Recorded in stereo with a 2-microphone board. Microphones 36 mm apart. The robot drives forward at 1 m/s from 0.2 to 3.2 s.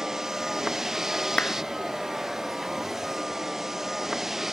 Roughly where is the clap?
Left.